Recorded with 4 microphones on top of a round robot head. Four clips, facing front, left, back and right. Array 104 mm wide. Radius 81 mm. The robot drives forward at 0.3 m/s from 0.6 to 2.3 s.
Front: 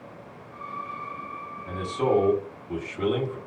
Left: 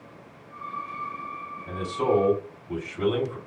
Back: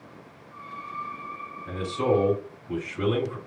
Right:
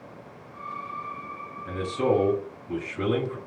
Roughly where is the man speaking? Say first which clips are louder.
Even, even; behind right.